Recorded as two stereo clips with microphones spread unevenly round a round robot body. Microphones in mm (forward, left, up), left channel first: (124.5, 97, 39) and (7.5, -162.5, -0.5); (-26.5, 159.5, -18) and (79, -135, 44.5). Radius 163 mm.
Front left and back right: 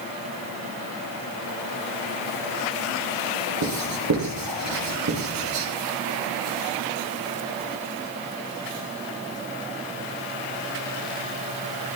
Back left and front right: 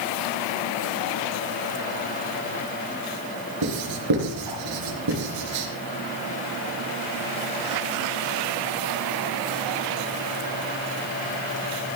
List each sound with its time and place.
3.6 s writing: 90° right, 4 m